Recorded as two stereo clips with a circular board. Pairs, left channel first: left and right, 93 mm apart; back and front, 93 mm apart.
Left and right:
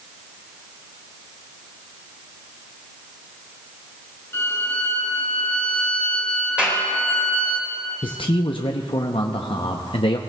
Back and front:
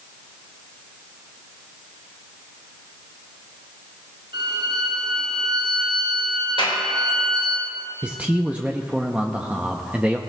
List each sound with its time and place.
4.3 s a violin: 25° left, 5 m
6.6 s a clap: 165° right, 3 m
8.0 s a man speaking: 75° left, 0.6 m